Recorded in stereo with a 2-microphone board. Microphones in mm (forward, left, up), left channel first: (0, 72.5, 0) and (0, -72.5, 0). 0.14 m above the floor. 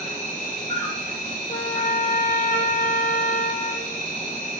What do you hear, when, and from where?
0.0 s an insect: 60° left (ahead or behind), 3 m
1.5 s a trumpet: 75° left (ahead or behind), 2.5 m